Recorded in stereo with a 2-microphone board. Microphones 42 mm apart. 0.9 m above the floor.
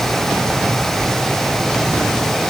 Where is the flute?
No flute in this recording.